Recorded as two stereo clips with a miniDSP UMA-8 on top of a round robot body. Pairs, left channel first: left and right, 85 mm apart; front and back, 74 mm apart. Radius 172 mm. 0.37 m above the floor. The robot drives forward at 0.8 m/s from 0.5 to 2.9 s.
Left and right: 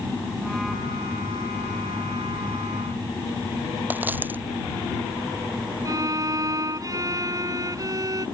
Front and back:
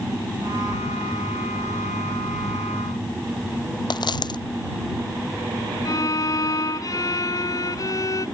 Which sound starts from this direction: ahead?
A dropped coin, at 3.9 s.